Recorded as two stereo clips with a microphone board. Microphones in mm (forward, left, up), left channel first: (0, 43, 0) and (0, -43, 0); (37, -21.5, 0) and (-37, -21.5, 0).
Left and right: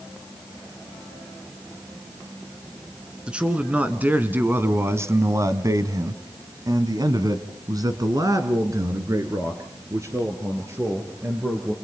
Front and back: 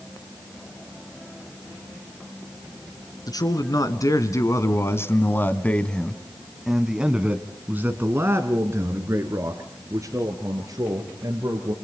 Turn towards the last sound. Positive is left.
turn(degrees=-145)